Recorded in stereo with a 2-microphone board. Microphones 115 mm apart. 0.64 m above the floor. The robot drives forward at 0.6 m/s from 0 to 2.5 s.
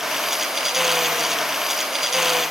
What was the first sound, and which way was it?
Only background noise.